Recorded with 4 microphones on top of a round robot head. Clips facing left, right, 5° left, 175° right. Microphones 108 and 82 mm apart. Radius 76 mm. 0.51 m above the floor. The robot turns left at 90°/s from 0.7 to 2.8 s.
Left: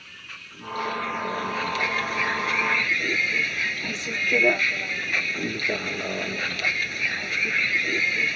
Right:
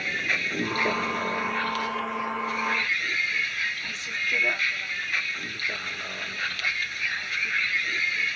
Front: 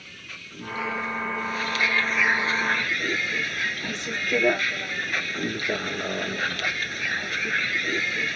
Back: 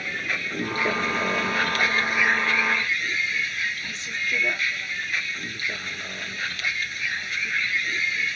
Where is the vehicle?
125° right; by 8.4 s 45° left.